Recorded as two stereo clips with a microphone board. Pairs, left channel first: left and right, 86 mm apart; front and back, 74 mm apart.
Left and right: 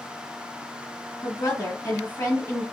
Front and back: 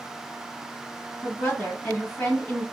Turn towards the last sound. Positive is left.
turn(degrees=55)